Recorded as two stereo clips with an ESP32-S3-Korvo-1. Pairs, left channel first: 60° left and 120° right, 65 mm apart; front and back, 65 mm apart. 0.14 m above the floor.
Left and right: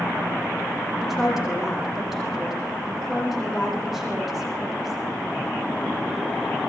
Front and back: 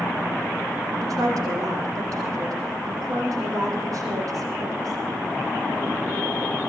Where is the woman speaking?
155° left, 7.5 m.